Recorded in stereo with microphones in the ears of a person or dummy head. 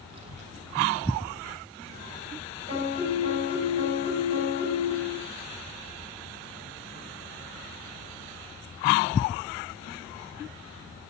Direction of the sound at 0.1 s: 35° right (ahead or behind).